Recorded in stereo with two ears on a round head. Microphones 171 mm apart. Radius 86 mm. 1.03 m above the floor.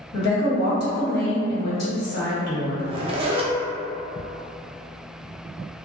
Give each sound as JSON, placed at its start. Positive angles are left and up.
{"t": 0.1, "sound": "a woman speaking", "side_deg": 55, "distance_m": 1.6}
{"t": 2.8, "sound": "a zipper", "side_deg": -30, "distance_m": 0.6}